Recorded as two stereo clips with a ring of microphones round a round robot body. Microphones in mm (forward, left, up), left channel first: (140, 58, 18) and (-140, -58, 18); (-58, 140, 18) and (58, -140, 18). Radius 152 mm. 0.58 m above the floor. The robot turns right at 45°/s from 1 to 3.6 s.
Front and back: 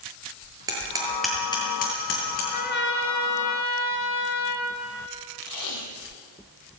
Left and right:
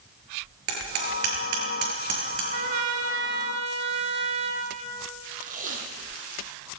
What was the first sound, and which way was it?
Hammering, 80° right.